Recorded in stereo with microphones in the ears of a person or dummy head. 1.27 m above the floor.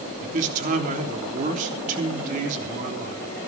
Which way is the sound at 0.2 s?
45° right (ahead or behind).